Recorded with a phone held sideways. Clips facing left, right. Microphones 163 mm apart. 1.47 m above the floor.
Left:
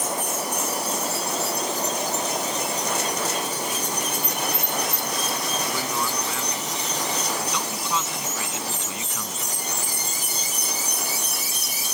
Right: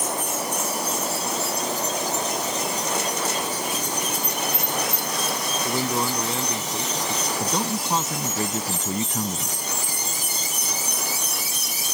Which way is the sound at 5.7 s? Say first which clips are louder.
Right 3 dB; 30° right (ahead or behind).